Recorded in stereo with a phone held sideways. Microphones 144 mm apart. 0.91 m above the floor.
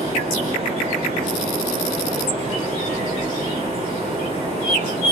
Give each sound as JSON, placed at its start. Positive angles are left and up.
{"t": 0.0, "sound": "a fan", "side_deg": -45, "distance_m": 1.8}